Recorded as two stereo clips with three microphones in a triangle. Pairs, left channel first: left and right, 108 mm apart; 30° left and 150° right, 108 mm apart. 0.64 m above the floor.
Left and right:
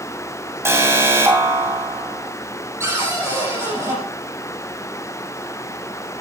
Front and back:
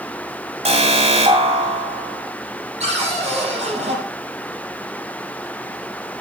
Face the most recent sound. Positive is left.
turn(degrees=-155)